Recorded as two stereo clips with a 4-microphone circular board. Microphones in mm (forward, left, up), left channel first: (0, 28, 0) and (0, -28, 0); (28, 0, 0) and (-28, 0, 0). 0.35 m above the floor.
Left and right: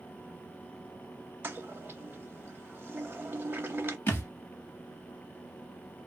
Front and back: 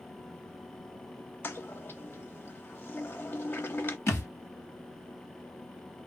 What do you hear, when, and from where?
1.4 s a toilet flushing: 45° right, 0.7 m
4.1 s a thud: 40° left, 1.4 m